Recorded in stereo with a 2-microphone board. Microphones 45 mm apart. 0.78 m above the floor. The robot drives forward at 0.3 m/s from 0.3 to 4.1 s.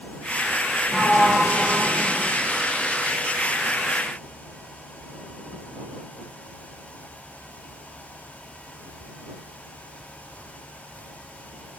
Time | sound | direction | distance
0.9 | a sliding door | 10° left (ahead or behind) | 1.8 m